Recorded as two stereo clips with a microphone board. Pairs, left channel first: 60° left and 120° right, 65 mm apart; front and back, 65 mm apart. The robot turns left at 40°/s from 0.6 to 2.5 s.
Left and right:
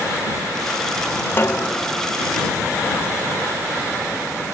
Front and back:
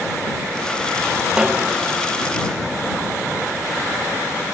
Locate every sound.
1.4 s a snare drum: 105° left; by 1.8 s 90° left